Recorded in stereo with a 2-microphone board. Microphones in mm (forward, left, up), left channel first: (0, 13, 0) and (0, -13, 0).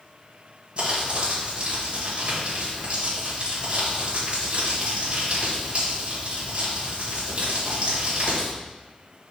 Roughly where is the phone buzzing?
I don't hear a phone buzzing.